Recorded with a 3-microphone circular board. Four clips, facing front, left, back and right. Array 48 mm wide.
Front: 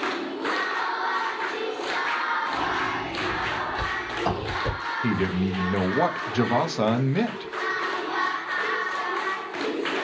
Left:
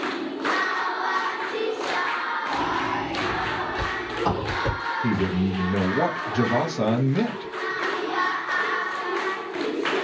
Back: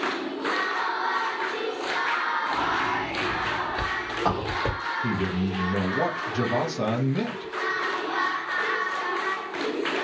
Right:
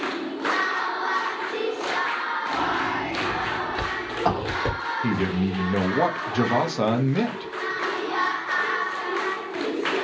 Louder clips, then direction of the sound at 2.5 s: Right 1 dB, back 1 dB; 140° right.